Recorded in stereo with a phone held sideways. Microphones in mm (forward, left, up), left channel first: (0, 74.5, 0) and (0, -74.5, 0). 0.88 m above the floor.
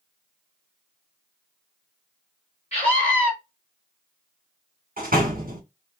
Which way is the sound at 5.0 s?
75° right (ahead or behind).